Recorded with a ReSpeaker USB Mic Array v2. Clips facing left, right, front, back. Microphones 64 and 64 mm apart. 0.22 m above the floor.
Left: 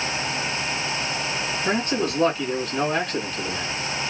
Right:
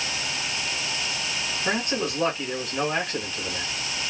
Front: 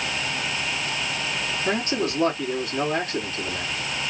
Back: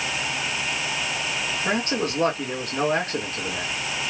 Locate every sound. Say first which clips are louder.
1.6 s a man speaking: left 2 dB, even; 175° right, 2 m